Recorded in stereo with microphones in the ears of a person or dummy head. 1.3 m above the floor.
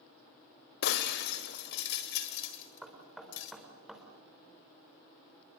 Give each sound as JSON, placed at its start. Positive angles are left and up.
{"t": 0.8, "sound": "breaking glass", "side_deg": 50, "distance_m": 1.8}
{"t": 2.8, "sound": "knocking", "side_deg": -10, "distance_m": 4.0}